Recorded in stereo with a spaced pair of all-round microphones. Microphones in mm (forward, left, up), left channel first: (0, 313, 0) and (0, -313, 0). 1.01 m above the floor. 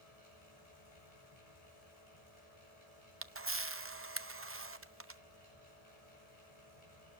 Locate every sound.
0.0 s a fan: 80° left, 9.5 m
3.2 s a camera shutter: 20° right (ahead or behind), 0.6 m